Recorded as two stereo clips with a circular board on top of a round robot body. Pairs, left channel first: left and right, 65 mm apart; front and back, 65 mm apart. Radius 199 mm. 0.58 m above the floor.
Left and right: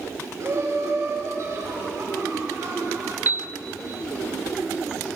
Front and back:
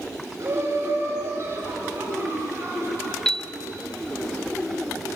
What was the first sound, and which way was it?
Laughter, 135° right.